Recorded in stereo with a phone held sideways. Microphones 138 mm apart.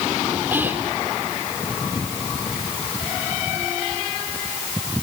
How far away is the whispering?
About 2.5 m.